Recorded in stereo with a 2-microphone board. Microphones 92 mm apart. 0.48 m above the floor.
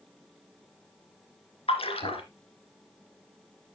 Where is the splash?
85° left, 1.8 m.